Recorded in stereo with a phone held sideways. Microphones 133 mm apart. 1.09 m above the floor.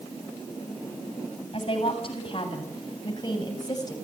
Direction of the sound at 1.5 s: 45° left (ahead or behind).